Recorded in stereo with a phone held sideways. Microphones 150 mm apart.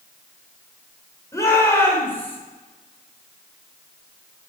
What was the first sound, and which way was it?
A shout, 20° left (ahead or behind).